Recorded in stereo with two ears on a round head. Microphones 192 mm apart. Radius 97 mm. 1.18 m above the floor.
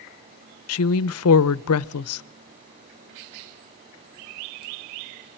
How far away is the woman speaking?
About 0.6 m.